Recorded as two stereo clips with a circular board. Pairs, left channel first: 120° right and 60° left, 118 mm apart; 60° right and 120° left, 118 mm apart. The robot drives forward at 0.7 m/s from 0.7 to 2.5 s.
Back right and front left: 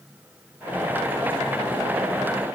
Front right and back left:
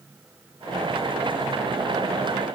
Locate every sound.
Only background noise.